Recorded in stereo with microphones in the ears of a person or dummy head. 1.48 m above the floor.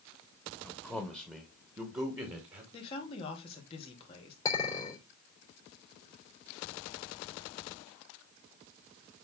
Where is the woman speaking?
30° left (ahead or behind), 3.5 m.